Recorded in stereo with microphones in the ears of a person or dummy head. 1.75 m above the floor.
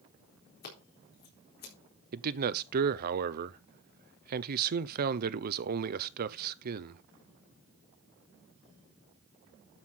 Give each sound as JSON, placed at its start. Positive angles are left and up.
{"t": 0.6, "sound": "scissors", "side_deg": 50, "distance_m": 4.0}
{"t": 2.1, "sound": "a man speaking", "side_deg": -55, "distance_m": 0.9}